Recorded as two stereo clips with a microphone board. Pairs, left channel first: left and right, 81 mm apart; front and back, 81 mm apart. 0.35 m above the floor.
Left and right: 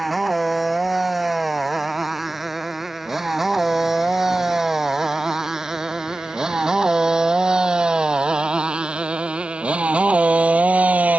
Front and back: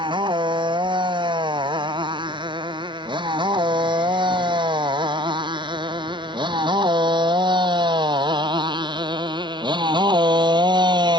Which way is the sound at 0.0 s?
Straight behind.